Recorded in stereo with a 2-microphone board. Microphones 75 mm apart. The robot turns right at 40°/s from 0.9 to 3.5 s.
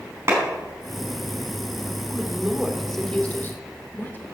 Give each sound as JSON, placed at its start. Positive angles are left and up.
{"t": 0.3, "sound": "a clap", "side_deg": -35, "distance_m": 5.0}
{"t": 2.1, "sound": "a woman speaking", "side_deg": -20, "distance_m": 2.0}